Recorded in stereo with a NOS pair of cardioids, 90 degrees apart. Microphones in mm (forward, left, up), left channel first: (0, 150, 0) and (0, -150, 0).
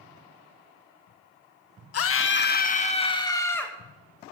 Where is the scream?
50° left, 1.6 m; by 3.7 s 5° left, 2.5 m.